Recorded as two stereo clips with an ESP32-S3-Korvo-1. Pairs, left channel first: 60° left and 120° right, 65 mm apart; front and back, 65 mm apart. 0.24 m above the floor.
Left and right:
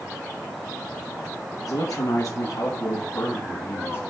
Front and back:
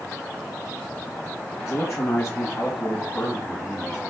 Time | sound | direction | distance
1.6 | a man speaking | 45° left | 2.5 m